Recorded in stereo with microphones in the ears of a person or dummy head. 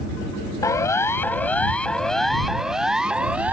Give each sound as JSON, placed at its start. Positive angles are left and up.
{"t": 0.6, "sound": "a siren", "side_deg": 15}